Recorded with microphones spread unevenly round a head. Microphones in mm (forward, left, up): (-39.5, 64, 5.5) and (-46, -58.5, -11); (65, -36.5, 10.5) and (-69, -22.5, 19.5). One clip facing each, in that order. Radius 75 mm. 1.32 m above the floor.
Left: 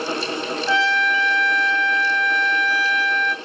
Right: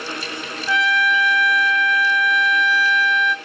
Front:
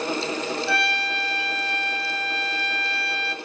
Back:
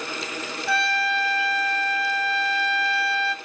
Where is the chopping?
I don't hear chopping.